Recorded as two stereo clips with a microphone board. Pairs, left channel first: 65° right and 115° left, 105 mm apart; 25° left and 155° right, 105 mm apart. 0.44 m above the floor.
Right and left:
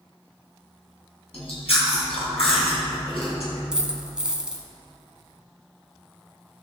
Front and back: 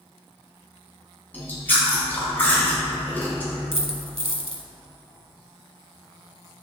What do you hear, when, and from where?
1.3 s chewing: 50° right, 3.5 m
3.7 s a dropped coin: 165° right, 1.2 m